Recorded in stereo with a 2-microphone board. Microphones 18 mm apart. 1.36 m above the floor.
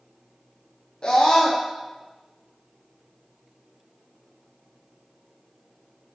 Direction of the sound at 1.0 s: 50° left (ahead or behind).